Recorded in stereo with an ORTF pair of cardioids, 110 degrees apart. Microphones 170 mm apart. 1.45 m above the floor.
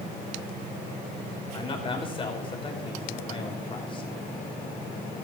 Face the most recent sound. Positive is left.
turn(degrees=30)